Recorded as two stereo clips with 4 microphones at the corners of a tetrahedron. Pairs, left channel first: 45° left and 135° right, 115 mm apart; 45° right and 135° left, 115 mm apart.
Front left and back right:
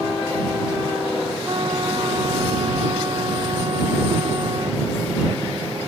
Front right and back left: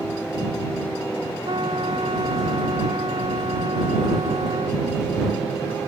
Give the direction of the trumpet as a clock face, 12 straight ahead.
6 o'clock.